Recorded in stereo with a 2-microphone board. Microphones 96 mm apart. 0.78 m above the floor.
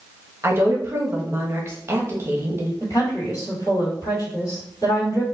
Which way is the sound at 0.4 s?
25° right (ahead or behind).